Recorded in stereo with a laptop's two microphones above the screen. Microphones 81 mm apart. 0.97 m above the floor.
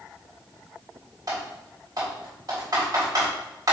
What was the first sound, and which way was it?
Typing on a keyboard, 55° right (ahead or behind).